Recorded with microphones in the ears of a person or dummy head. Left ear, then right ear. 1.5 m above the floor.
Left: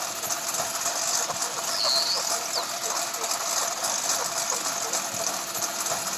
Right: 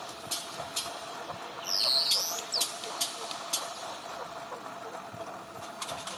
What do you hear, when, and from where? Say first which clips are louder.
0.0 s a lawn mower: left 8 dB; 80° left
1.6 s a bird: left 2 dB; 10° right (ahead or behind)